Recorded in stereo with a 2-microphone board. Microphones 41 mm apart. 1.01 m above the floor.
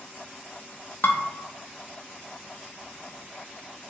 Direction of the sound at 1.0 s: 55° left (ahead or behind).